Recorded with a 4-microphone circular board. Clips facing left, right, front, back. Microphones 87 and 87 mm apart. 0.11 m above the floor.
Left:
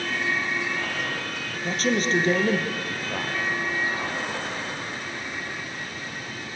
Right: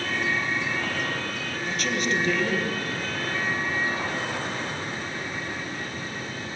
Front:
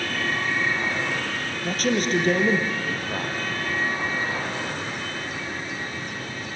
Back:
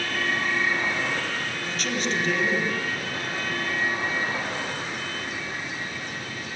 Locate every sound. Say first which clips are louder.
1.6 s a man speaking: left 4 dB, front 6 dB; 40° left, 3 m